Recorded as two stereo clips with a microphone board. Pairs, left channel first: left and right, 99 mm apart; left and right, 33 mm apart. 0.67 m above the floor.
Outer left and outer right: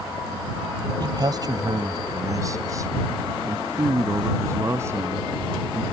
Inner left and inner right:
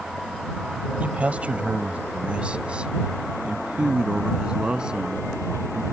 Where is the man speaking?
50° right (ahead or behind); by 5.8 s 25° right (ahead or behind).